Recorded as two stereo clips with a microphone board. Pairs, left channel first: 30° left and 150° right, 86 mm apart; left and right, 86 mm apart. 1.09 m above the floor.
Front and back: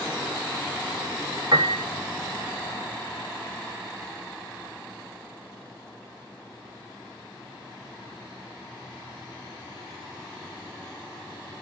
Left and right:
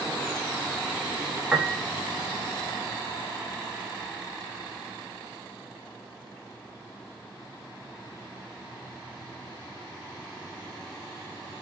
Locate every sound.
1.5 s a piano: 170° right, 0.8 m